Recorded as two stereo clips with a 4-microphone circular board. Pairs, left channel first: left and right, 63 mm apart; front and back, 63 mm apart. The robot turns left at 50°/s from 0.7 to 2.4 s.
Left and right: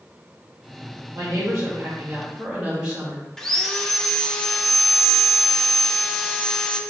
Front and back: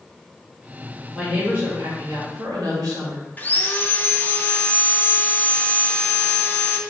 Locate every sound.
1.1 s a woman speaking: 105° right, 2 m; by 3.3 s 165° right, 2 m
3.4 s sawing: 15° left, 0.5 m